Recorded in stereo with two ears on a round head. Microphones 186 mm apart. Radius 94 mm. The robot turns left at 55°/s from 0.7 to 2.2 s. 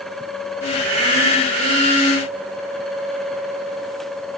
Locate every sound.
Only background noise.